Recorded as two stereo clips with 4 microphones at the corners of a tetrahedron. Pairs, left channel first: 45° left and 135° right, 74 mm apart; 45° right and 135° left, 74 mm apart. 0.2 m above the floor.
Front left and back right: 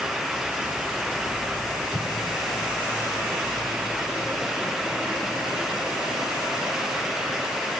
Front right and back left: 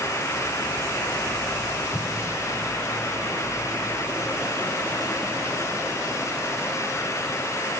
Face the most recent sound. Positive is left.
turn(degrees=30)